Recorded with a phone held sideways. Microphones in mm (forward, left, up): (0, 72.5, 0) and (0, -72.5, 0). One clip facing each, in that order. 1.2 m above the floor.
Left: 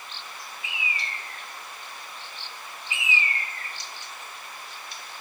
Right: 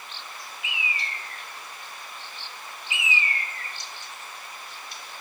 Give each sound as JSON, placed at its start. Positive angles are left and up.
{"t": 0.6, "sound": "a bird", "side_deg": 30, "distance_m": 0.7}